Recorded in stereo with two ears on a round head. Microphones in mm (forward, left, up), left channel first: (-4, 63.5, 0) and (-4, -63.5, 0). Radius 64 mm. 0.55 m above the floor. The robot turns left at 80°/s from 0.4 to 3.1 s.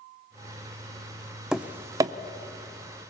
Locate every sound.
1.5 s tapping: 5° right (ahead or behind), 0.7 m; by 2.1 s 25° right (ahead or behind), 0.7 m